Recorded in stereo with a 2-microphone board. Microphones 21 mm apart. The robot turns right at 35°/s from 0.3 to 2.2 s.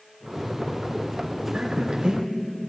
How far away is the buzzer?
I don't hear a buzzer.